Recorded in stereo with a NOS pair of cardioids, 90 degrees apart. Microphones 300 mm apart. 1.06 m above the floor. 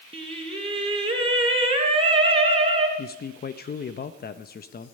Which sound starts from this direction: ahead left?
A man speaking, at 3.0 s.